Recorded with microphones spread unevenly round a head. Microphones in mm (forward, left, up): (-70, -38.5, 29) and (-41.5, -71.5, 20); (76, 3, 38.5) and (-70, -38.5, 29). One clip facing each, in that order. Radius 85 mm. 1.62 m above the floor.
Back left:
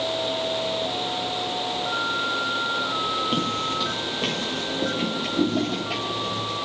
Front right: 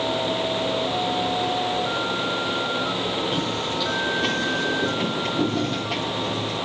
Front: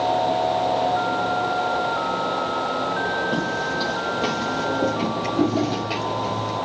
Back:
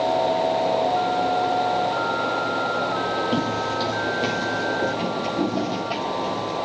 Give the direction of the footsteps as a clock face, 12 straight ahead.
7 o'clock.